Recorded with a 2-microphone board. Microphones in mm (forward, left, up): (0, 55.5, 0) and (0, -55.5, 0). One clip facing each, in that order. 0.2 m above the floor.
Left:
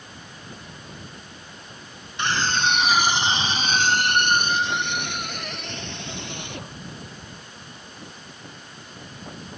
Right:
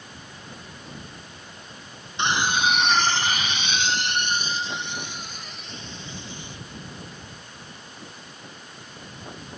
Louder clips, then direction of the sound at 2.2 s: Right 1 dB; 20° right (ahead or behind).